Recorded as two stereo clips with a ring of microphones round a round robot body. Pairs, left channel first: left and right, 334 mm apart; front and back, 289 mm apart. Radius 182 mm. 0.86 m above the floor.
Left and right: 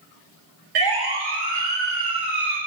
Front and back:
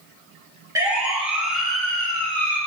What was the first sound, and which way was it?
A siren, 100° right.